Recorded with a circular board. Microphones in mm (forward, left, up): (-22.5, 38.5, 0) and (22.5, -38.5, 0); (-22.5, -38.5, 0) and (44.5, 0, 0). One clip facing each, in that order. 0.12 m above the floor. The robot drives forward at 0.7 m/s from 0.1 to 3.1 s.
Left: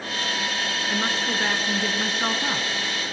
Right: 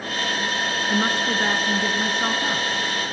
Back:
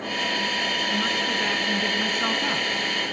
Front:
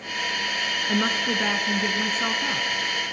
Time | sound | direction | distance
0.9 | a woman speaking | straight ahead | 1.3 m